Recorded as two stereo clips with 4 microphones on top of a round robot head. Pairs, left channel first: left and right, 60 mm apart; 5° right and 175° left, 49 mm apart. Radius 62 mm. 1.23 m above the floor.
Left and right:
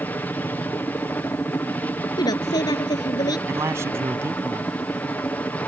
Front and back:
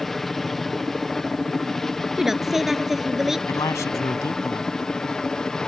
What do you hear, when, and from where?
0.0 s a helicopter: 70° left; by 5.7 s 55° left
2.2 s a woman speaking: 90° left
3.5 s a man speaking: 40° right